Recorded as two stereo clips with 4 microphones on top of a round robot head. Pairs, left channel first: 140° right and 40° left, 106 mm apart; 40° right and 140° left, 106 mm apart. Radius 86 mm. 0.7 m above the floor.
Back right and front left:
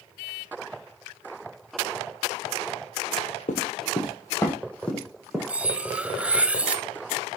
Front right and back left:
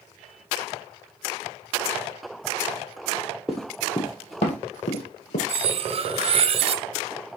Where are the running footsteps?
135° right, 1.1 m; by 5.4 s 50° right, 2.5 m.